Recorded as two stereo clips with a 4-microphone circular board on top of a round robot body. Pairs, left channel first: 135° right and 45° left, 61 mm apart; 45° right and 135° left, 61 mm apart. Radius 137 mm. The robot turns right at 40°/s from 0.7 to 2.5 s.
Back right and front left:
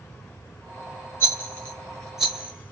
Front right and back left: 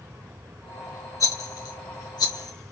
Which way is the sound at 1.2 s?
80° right.